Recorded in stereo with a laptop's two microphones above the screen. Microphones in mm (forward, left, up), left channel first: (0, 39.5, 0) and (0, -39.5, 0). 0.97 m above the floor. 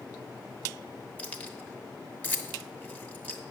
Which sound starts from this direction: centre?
Keys jangling, at 1.2 s.